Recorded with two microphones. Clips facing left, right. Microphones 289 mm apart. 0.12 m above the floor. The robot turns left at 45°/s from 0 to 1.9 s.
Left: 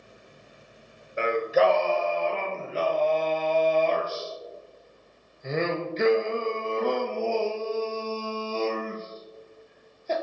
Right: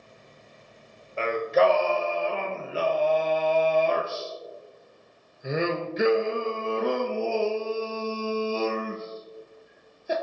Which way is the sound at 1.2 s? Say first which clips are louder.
Even; 20° left.